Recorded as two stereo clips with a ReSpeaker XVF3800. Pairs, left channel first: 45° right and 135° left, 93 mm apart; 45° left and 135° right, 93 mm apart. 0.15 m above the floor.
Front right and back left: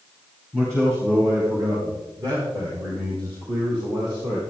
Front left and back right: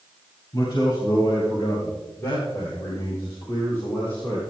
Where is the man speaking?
75° left, 3 m; by 4.4 s 110° left, 6 m.